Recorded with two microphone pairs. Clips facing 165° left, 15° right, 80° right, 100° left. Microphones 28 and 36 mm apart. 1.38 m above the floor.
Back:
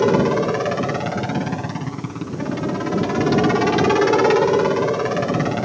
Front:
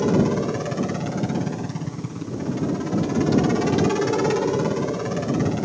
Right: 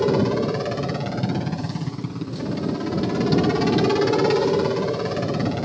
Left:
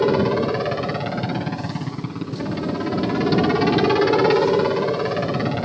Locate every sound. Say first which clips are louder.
0.0 s a helicopter: back 4 dB, left 2 dB; 145° left